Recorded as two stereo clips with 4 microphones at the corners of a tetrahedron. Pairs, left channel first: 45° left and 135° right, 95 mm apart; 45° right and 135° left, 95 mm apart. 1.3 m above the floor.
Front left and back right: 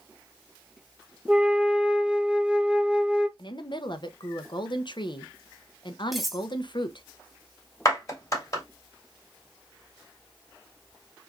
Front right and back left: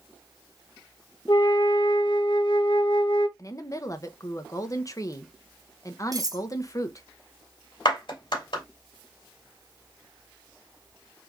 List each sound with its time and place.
1.3 s a flute: 60° right, 0.7 m
3.4 s a woman speaking: 10° left, 0.8 m
6.1 s cutlery clinking: 135° left, 0.6 m
7.8 s a clap: 10° right, 2.5 m